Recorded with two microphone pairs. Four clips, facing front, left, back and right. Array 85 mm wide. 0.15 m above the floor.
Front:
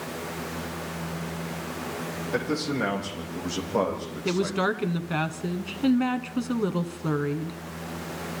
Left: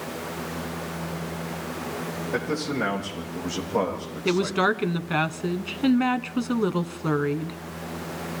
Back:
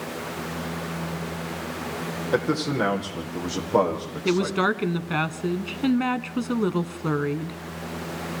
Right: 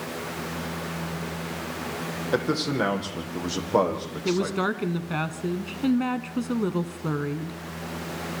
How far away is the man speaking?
About 7 m.